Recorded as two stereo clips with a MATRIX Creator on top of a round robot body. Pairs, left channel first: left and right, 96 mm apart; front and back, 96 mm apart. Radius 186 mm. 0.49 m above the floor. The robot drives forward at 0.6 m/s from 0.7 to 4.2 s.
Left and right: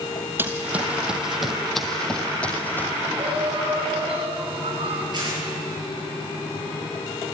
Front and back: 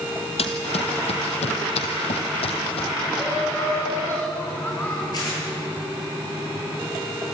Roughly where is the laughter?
Ahead right.